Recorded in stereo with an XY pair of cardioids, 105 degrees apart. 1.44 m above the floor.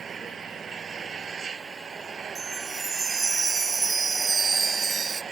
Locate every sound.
0.0 s an engine running: 40° right
2.4 s a chime: 30° right